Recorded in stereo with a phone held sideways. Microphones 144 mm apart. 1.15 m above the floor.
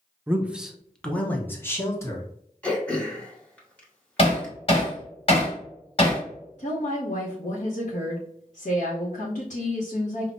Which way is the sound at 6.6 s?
55° left (ahead or behind).